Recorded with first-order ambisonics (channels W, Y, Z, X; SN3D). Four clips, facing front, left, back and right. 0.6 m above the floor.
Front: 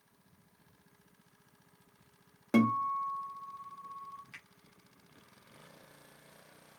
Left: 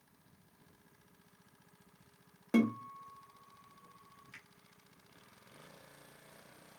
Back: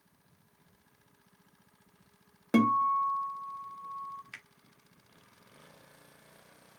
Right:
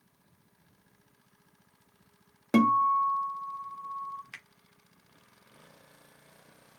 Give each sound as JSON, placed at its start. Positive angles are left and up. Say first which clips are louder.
{"t": 2.5, "sound": "a guitar", "louder": "right 10 dB, back 3 dB", "azimuth_deg": -105, "distance_m": 1.0}
{"t": 4.3, "sound": "a finger snap", "louder": "right 8 dB, back 3 dB", "azimuth_deg": -125, "distance_m": 1.2}